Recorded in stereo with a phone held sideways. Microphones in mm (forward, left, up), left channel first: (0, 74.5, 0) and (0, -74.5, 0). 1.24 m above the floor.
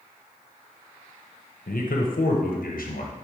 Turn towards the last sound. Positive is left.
turn(degrees=75)  # may be behind; listen again after turning